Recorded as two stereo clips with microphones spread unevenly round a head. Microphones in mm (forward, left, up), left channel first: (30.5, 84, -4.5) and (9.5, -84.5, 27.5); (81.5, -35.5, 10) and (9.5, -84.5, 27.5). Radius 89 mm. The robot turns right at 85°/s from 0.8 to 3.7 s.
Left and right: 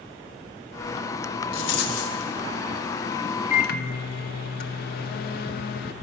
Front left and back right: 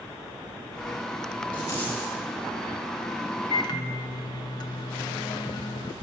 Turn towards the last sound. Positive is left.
turn(degrees=70)